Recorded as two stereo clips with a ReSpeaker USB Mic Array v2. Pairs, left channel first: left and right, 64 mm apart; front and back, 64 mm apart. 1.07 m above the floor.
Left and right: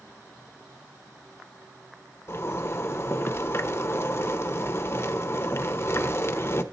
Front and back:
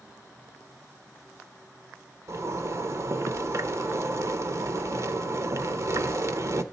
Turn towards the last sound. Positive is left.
turn(degrees=140)